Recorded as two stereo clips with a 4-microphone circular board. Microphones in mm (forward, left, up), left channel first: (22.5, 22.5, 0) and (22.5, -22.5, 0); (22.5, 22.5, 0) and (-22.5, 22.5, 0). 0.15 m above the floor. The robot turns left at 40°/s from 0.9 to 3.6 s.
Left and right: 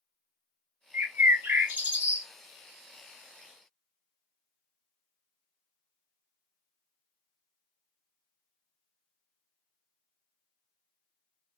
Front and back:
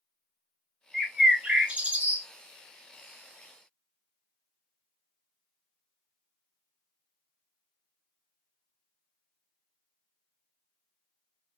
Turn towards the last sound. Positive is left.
turn(degrees=160)